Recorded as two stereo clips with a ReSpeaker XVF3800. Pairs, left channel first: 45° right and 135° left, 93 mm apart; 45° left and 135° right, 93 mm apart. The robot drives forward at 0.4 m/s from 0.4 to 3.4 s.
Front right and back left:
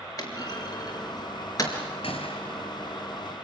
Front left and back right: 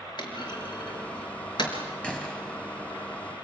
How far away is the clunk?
About 5 m.